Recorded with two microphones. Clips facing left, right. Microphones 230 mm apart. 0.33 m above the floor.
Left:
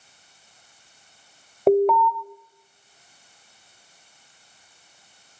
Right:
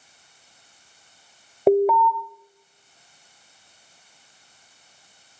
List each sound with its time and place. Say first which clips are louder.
1.7 s an alarm: even; 5° right (ahead or behind), 1.5 m